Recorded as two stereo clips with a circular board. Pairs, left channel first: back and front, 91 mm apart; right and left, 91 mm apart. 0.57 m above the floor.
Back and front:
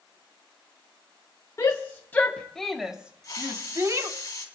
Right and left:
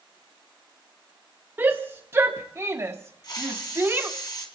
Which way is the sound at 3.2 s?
130° right.